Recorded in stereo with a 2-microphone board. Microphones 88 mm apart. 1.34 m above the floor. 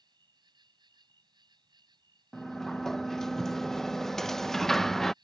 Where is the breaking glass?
No breaking glass in this recording.